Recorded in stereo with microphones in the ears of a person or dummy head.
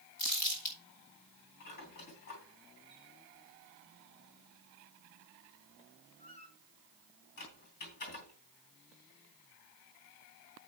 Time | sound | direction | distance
0.2 | crumpling | 50° left (ahead or behind) | 4.5 m
1.6 | a squeak | 45° left (ahead or behind) | 3 m